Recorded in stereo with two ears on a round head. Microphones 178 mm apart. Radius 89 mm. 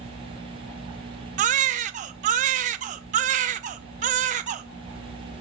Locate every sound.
1.4 s a baby crying: 40° right (ahead or behind), 0.6 m